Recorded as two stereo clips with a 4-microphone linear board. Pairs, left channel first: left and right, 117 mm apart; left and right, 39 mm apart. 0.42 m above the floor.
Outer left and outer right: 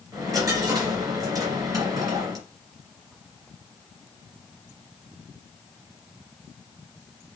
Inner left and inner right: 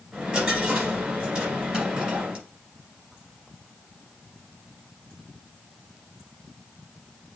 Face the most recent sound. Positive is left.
turn(degrees=-30)  # may be behind; listen again after turning